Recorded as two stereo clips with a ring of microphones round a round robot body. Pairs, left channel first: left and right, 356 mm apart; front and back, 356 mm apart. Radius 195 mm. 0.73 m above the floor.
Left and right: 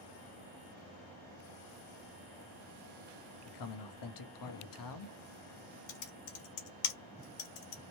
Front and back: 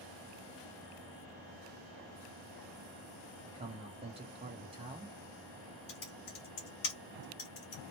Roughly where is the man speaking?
Left.